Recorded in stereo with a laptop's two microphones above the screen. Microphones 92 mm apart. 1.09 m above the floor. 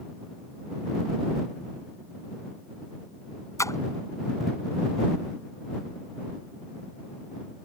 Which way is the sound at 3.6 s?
35° left (ahead or behind).